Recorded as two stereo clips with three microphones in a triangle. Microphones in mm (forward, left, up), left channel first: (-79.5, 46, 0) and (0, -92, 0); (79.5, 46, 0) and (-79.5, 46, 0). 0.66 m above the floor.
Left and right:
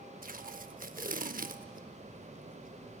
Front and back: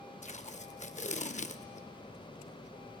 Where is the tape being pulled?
35° right, 0.5 m.